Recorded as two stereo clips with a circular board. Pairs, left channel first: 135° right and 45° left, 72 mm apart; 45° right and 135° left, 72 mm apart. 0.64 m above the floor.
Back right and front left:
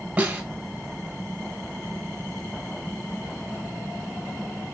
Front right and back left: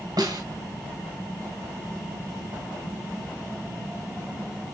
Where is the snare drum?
115° left, 2.0 m.